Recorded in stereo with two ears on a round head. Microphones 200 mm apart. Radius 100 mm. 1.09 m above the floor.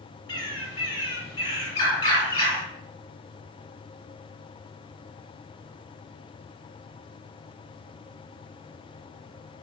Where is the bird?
20° left (ahead or behind), 3.5 m.